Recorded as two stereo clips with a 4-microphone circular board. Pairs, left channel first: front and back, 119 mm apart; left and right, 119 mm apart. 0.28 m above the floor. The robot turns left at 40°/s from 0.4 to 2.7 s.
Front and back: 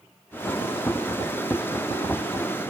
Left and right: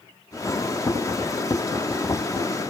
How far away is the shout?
No shout in this recording.